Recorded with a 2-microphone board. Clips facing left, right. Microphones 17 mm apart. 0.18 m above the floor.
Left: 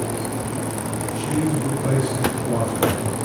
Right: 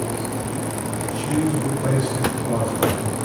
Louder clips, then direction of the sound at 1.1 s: Right 1 dB; 55° right (ahead or behind).